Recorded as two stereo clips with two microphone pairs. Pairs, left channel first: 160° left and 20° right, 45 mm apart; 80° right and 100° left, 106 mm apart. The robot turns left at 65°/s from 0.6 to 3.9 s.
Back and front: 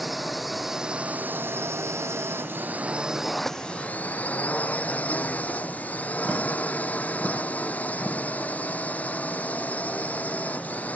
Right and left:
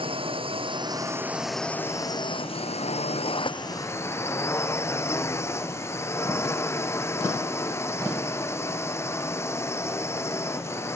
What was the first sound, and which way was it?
A drone, 70° left.